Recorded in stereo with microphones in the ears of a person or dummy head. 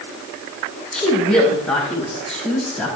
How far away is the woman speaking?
About 7.5 m.